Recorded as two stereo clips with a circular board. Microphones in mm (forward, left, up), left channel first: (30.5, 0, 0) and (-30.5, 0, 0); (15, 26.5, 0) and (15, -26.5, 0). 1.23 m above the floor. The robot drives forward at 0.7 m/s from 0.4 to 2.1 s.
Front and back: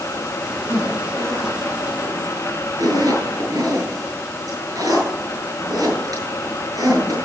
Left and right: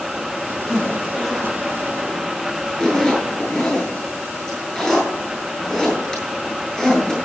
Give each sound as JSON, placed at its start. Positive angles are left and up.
{"t": 0.7, "sound": "a zipper", "azimuth_deg": 170, "distance_m": 7.0}